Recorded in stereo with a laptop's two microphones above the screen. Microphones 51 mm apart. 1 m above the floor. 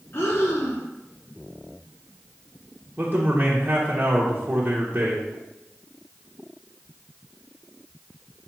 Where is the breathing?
50° left (ahead or behind), 0.9 m.